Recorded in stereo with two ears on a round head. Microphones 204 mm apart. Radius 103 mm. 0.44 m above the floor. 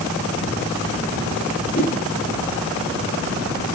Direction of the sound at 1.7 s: 40° left (ahead or behind).